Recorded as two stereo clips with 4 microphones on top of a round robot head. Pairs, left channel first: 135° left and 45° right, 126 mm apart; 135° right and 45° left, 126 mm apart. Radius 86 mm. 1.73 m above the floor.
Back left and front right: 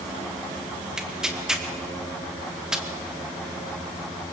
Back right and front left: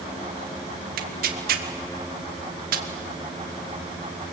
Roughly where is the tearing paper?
Ahead left.